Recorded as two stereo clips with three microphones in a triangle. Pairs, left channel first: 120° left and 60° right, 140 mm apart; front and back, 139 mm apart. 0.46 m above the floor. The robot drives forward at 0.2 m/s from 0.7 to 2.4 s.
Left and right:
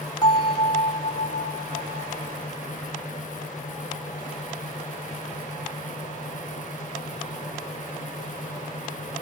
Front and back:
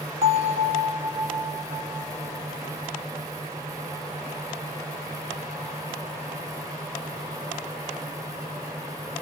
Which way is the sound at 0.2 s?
165° left.